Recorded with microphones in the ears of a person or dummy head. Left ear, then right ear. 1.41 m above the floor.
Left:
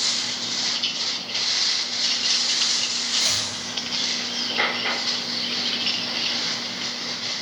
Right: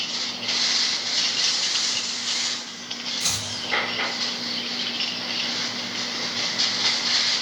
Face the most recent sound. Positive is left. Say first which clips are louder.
# left 1 dB
turn(degrees=5)  # may be behind; listen again after turning